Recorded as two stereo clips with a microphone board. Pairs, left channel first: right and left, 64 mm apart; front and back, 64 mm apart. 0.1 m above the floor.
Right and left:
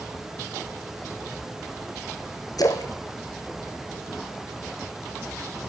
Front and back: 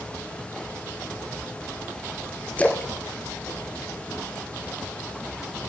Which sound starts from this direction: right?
A splash, at 2.6 s.